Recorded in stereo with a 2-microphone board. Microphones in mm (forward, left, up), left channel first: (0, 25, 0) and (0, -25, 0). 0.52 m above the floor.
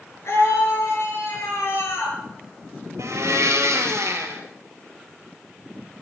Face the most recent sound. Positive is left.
turn(degrees=-80)